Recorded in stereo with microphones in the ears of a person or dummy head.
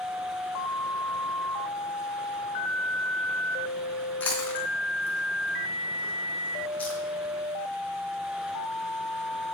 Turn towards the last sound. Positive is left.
turn(degrees=10)  # may be behind; listen again after turning